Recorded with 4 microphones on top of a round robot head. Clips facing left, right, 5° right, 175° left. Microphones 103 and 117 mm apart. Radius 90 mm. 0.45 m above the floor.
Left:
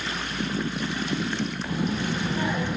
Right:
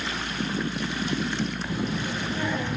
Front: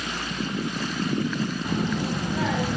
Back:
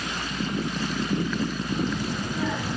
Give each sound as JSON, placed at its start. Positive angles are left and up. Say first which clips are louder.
{"t": 1.6, "sound": "a child speaking", "louder": "left 2 dB, front 1 dB", "azimuth_deg": 10, "distance_m": 3.0}